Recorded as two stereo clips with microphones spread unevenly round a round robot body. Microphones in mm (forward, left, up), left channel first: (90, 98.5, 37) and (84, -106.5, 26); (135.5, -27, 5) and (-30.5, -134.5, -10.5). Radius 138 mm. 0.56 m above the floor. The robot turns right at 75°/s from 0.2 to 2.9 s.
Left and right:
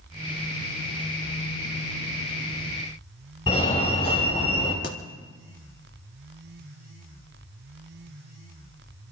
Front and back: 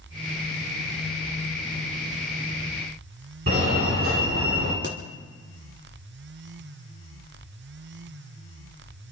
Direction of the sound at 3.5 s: 160° left.